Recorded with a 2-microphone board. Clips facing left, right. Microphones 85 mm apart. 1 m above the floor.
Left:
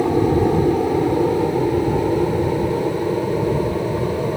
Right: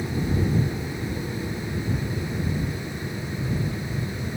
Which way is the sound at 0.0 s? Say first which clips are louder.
Left 11 dB; 65° left (ahead or behind).